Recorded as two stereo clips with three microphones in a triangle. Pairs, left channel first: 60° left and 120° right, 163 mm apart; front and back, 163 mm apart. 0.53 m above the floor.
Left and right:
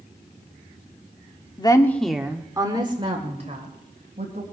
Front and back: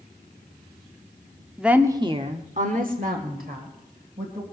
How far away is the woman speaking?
About 1.2 m.